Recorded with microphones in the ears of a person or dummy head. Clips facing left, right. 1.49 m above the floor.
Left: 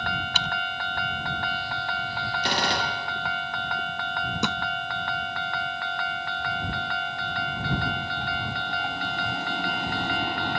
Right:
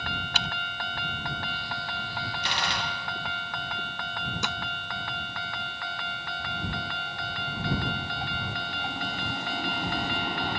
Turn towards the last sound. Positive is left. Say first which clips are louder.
# left 8 dB
turn(degrees=85)